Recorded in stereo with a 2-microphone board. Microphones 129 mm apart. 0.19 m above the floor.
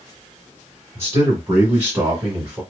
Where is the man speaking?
20° right (ahead or behind), 1.4 m; by 2.6 s 10° right (ahead or behind), 1.6 m.